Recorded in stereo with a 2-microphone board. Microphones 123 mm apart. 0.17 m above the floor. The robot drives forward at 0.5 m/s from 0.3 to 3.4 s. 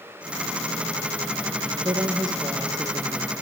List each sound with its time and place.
1.6 s a woman speaking: 35° right (ahead or behind), 3 m; by 3.4 s 30° right (ahead or behind), 3.5 m